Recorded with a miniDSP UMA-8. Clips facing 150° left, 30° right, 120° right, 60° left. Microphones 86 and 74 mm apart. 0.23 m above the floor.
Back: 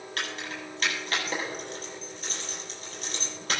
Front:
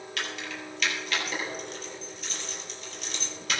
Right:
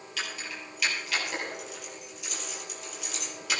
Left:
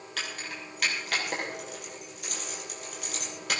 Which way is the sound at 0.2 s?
100° left.